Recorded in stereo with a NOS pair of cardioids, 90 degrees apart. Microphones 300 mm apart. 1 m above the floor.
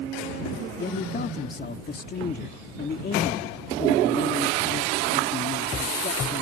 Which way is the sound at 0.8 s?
30° left.